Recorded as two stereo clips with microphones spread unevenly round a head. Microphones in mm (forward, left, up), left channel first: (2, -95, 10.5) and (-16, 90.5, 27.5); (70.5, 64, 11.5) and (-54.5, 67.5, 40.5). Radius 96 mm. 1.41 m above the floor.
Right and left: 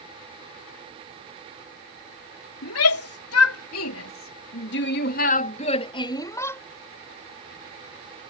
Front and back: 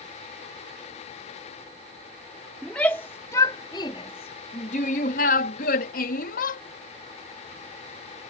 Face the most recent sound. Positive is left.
turn(degrees=-5)